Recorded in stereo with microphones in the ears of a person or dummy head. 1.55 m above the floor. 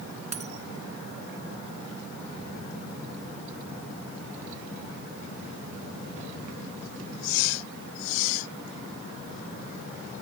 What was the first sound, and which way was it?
A dropped coin, 40° right (ahead or behind).